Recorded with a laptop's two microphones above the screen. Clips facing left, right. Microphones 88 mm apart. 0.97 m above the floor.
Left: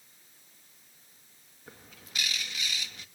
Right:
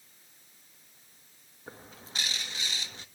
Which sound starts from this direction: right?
A bird, at 1.7 s.